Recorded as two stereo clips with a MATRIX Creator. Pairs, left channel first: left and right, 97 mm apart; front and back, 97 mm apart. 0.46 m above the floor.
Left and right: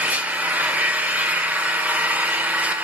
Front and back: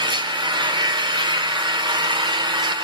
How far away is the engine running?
About 1.0 m.